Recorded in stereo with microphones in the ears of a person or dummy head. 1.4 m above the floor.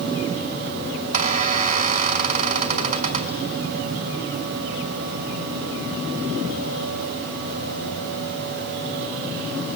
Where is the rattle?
No rattle in this recording.